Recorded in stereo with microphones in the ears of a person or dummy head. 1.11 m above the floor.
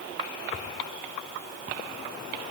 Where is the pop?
No pop in this recording.